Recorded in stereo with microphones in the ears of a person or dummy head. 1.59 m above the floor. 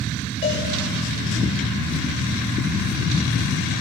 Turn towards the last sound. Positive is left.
turn(degrees=30)  # may be behind; listen again after turning